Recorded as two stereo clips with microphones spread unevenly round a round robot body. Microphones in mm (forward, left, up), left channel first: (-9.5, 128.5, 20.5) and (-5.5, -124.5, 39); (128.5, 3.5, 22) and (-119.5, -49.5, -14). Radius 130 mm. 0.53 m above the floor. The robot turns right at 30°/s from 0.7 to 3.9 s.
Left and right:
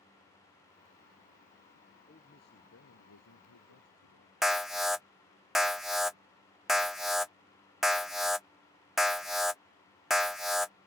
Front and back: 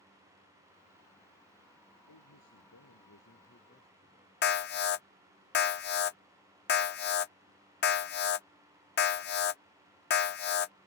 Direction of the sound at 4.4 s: 5° left.